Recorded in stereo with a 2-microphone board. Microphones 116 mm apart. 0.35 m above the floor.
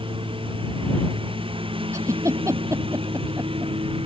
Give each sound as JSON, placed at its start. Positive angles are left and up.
{"t": 0.0, "sound": "a lawn mower", "side_deg": -50}
{"t": 1.9, "sound": "a giggle", "side_deg": -25}